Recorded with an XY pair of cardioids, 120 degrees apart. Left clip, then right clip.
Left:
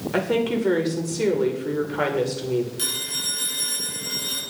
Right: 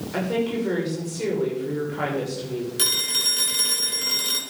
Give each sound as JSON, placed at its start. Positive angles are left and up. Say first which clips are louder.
{"t": 0.1, "sound": "a woman speaking", "louder": "left 3 dB", "azimuth_deg": 30, "distance_m": 6.0}
{"t": 2.8, "sound": "a phone ringing", "louder": "right 5 dB", "azimuth_deg": -40, "distance_m": 5.5}